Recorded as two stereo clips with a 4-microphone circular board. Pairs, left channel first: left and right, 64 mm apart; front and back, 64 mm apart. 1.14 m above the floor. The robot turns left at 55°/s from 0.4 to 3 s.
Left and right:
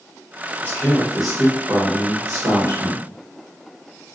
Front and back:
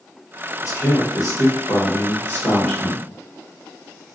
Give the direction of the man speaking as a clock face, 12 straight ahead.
11 o'clock.